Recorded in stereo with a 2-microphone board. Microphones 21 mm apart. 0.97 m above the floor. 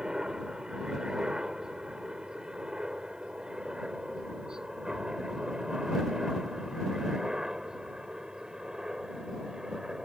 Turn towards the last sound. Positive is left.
turn(degrees=-30)  # may be behind; listen again after turning